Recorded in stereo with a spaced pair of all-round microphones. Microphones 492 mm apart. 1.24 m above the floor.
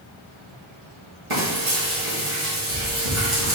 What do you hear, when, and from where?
1.3 s frying: 75° right (ahead or behind), 2.5 m